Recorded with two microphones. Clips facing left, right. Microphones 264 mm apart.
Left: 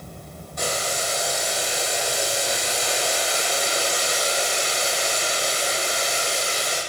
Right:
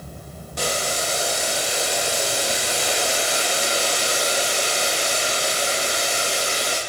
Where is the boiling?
80° right, 9 m.